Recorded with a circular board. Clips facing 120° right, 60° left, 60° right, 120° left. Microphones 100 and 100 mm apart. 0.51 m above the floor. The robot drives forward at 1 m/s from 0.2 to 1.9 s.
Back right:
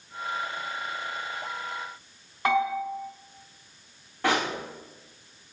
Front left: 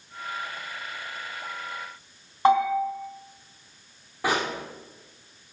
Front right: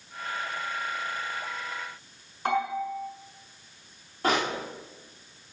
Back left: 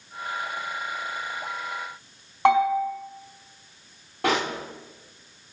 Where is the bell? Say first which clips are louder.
Front left 5 dB, back left 8 dB; 120° left, 4 m.